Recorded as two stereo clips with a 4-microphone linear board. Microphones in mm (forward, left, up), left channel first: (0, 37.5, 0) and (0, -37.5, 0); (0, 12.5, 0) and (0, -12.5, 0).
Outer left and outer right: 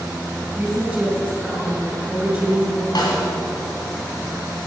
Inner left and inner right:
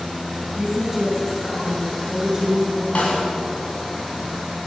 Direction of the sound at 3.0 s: 60° left (ahead or behind).